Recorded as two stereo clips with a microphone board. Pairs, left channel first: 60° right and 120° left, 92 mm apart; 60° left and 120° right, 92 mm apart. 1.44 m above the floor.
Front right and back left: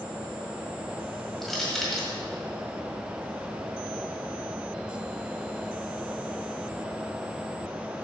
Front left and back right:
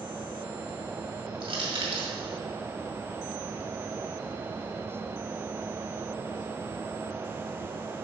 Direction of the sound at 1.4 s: 150° right.